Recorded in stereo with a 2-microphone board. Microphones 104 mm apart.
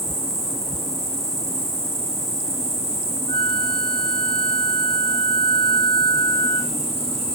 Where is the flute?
65° left (ahead or behind), 0.8 m.